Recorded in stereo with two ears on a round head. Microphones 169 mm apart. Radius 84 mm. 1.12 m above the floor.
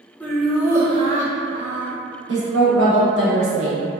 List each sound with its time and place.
0.2 s laughter: 10° left (ahead or behind), 0.7 m; by 1.9 s 65° right (ahead or behind), 0.9 m
2.3 s a woman speaking: 70° right (ahead or behind), 0.9 m